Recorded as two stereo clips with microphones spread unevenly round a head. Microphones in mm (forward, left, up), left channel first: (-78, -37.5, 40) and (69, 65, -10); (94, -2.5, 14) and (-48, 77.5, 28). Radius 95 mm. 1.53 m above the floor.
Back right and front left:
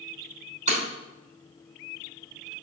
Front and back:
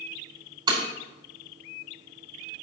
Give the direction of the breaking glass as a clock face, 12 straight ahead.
9 o'clock.